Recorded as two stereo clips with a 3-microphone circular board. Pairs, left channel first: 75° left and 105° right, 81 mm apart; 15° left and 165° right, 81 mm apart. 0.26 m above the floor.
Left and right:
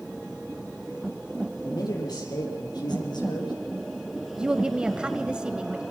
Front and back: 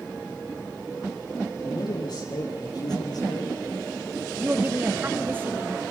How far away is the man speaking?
About 7.5 m.